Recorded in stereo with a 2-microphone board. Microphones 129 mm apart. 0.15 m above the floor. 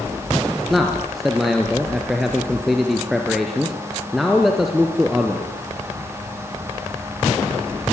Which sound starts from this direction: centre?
A man speaking, at 0.7 s.